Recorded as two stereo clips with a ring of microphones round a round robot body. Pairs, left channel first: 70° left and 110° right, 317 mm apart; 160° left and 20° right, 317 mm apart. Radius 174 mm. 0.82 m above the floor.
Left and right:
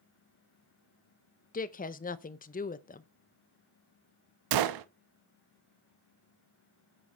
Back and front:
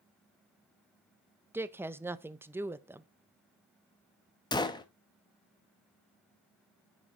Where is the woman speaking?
50° left, 0.6 m.